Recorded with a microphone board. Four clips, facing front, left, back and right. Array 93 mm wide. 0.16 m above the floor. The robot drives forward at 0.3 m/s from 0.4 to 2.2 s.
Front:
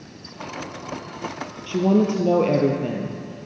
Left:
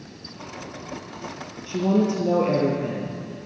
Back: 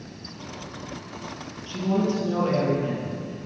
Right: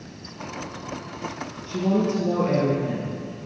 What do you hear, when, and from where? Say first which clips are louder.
1.7 s a woman speaking: left 1 dB, front 6 dB; 15° left, 3.5 m